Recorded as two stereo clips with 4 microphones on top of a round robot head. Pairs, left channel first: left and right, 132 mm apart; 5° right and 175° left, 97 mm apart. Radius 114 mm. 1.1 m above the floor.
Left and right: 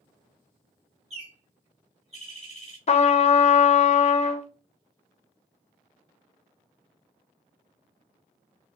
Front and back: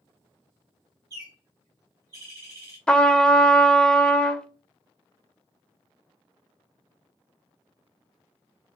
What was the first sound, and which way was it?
A bird, 130° right.